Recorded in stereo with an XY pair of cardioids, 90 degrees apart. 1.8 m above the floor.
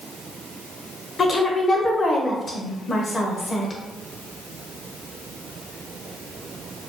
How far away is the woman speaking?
About 0.9 m.